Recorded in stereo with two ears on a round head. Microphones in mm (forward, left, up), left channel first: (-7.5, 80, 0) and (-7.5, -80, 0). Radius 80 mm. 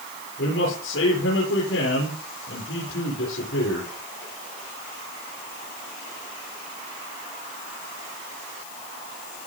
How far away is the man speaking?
About 8.5 m.